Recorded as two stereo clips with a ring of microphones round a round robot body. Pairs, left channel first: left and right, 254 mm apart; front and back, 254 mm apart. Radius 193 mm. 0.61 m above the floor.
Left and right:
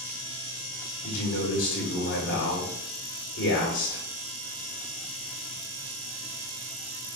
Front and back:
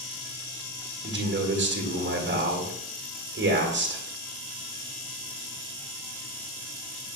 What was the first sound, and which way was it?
A man speaking, 135° left.